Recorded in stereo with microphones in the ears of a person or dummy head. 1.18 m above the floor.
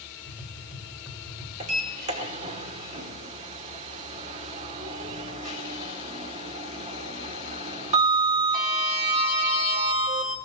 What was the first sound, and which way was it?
Tapping, 5° right (ahead or behind).